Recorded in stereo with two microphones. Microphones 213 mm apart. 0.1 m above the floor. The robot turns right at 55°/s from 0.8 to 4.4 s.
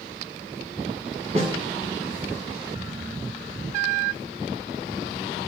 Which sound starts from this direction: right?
A snare drum, at 1.4 s.